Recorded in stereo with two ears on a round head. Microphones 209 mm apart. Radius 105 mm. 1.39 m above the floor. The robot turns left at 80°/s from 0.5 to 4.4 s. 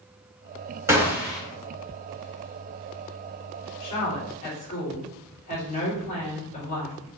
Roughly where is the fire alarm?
No fire alarm in this recording.